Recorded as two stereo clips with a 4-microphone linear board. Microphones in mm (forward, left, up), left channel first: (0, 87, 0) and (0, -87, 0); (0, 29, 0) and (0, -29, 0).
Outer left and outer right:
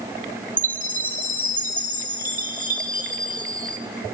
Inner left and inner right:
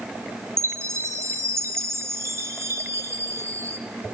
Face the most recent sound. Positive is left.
turn(degrees=-50)  # may be behind; listen again after turning